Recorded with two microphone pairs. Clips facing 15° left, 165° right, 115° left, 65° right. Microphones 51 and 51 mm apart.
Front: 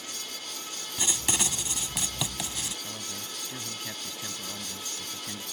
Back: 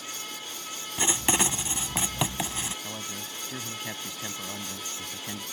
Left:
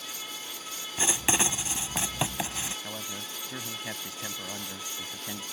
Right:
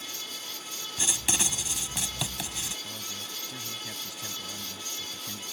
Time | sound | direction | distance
1.0 | writing | 155° left | ?
2.8 | a man speaking | 140° left | ?